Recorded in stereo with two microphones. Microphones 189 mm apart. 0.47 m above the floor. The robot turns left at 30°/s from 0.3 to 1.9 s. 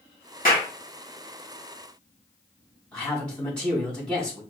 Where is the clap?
50° left (ahead or behind), 2.5 m; by 0.7 s 45° left (ahead or behind), 2.5 m.